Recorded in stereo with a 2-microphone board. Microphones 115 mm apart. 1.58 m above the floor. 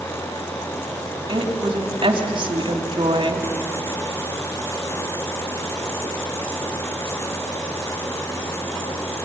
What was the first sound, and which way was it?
A woman speaking, 50° right (ahead or behind).